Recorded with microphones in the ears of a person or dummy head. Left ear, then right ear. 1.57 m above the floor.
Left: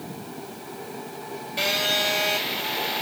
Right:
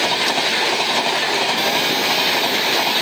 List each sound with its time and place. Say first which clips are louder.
1.6 s a phone buzzing: right 5 dB; 10° left (ahead or behind), 4 m